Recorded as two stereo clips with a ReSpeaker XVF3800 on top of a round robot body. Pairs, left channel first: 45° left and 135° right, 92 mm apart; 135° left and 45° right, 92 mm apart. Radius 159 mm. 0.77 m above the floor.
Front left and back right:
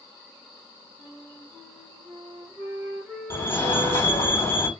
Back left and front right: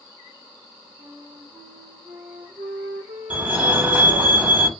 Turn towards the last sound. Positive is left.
turn(degrees=10)